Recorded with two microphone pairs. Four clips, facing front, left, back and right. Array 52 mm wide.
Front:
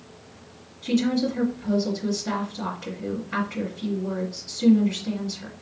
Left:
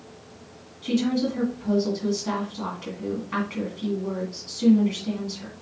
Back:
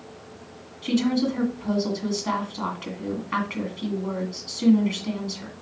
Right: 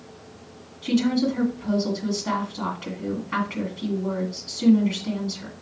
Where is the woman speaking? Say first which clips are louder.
Right 2 dB, even; 165° right, 2 m.